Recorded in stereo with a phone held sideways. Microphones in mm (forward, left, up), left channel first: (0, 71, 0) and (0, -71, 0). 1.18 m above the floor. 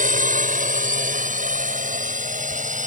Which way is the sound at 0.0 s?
65° right (ahead or behind).